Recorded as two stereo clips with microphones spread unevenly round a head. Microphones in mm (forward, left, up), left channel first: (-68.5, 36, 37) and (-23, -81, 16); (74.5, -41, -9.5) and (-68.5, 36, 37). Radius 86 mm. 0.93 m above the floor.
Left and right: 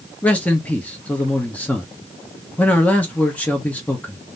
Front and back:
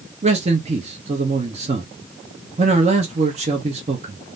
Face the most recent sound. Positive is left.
turn(degrees=-165)